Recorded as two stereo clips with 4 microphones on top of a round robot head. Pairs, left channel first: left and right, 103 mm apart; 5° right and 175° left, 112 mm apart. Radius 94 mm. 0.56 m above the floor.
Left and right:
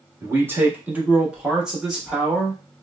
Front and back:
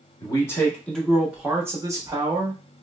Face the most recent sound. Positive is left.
turn(degrees=170)